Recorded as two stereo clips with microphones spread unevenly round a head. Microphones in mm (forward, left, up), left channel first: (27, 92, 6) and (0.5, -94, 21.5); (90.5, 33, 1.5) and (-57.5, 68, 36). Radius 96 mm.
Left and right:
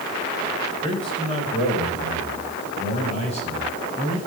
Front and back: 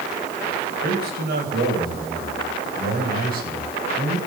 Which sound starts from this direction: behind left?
A man speaking, at 0.8 s.